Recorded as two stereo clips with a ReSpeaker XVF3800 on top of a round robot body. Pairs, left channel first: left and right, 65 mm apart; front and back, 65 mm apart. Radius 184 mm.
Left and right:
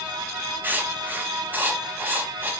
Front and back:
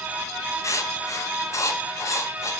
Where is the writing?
30° right, 1.6 m.